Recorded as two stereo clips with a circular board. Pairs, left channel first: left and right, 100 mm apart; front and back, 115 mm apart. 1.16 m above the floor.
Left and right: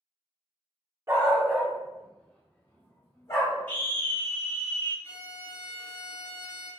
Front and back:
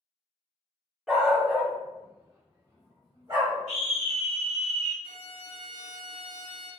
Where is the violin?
155° left, 1.4 m.